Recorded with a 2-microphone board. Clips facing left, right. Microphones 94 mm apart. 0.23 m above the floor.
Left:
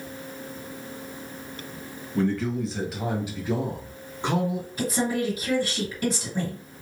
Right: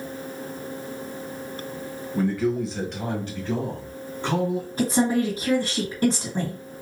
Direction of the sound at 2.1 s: 10° right (ahead or behind).